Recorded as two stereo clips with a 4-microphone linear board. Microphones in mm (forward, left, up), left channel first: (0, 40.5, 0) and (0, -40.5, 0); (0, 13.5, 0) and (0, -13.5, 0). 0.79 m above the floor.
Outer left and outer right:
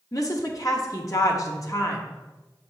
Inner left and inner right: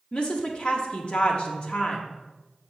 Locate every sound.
0.1 s a woman speaking: 45° left (ahead or behind), 1.2 m